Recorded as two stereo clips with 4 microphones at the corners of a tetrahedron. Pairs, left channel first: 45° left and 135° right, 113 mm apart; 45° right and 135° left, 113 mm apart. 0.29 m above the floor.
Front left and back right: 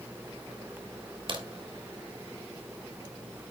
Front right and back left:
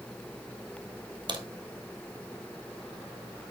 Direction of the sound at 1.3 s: Straight behind.